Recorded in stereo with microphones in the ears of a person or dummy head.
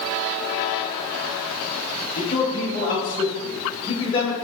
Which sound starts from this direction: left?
A man speaking, at 2.2 s.